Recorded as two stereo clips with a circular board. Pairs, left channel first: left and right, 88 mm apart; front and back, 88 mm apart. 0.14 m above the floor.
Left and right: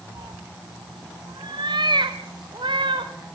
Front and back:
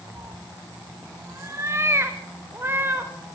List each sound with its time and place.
0.1 s a cat meowing: 130° right, 2.5 m; by 3.1 s 115° right, 4 m